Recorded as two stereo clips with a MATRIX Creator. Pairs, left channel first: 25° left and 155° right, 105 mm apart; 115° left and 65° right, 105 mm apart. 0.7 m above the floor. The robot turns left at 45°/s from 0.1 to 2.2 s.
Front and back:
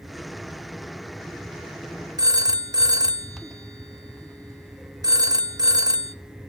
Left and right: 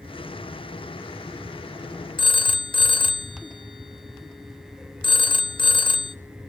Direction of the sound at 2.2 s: 150° left.